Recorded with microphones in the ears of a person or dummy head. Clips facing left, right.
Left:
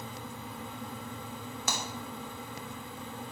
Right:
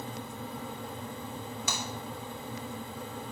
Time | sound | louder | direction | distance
1.7 | breaking glass | left 3 dB | 50° left (ahead or behind) | 3 m